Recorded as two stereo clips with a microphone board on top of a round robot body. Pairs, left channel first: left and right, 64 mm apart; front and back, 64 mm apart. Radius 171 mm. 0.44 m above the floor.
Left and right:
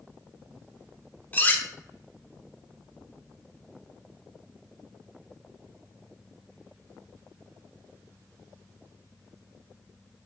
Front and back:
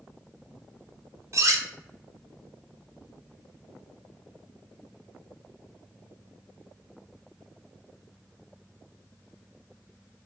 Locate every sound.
1.3 s cutlery clinking: 150° left, 0.8 m